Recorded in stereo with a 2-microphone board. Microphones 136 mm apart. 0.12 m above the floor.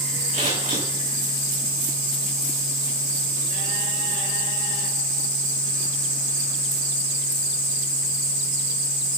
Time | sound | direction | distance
0.3 | scissors | 80° right | 9 m